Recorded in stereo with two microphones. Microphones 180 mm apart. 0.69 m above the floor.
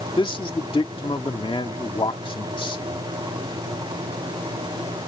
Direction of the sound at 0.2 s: 30° left (ahead or behind).